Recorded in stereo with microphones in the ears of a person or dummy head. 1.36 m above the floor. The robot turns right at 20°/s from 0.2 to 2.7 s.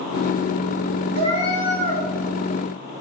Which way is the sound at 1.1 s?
50° right (ahead or behind).